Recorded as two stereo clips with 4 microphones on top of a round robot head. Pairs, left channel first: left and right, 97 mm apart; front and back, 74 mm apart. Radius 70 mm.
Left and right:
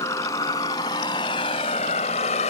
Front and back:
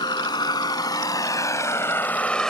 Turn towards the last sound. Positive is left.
turn(degrees=85)